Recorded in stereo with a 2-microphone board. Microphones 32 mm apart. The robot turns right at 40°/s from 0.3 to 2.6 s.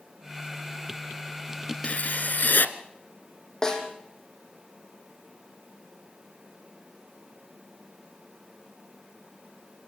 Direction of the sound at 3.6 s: 20° left (ahead or behind).